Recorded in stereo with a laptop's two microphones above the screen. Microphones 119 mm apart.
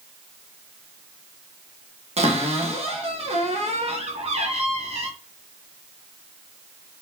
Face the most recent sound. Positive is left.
turn(degrees=-60)  # may be behind; listen again after turning